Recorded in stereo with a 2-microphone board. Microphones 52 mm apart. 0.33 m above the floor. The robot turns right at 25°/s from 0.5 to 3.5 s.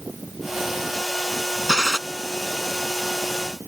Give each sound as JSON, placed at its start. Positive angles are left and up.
{"t": 1.7, "sound": "a gunshot", "side_deg": -15}